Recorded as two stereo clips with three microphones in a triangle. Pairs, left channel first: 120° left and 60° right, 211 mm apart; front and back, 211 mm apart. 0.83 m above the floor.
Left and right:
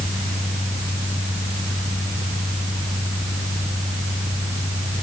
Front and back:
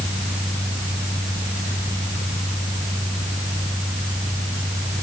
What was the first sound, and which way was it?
Only background noise.